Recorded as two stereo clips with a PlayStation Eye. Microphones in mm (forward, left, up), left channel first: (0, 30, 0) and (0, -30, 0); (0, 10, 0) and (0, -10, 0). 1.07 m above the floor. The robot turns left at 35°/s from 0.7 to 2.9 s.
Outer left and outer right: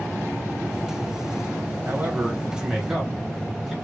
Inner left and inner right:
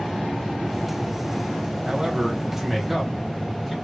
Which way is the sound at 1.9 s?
35° right (ahead or behind).